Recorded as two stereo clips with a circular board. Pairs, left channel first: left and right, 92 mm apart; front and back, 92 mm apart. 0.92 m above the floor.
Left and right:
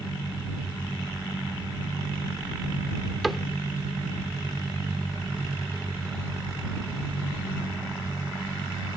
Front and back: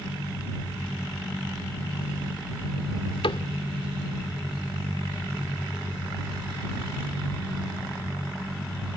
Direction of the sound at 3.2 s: Straight ahead.